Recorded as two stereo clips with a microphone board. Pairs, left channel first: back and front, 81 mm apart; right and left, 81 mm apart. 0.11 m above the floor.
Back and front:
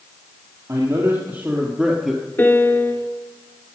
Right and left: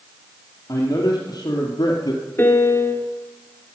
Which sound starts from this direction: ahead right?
A man speaking, at 0.7 s.